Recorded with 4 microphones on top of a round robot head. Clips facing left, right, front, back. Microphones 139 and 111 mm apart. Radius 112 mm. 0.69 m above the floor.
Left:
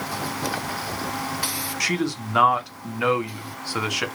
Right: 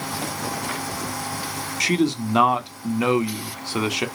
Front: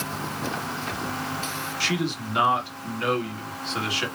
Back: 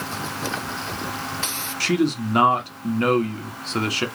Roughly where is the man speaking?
Behind right.